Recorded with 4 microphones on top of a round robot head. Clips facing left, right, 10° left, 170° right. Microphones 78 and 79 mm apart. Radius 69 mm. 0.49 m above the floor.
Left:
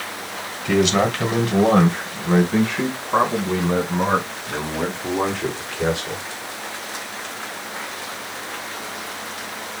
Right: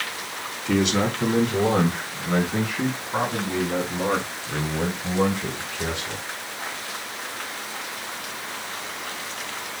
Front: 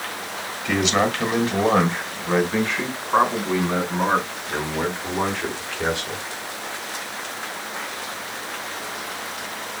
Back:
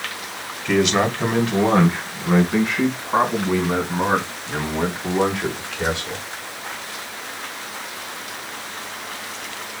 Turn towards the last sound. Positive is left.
turn(degrees=110)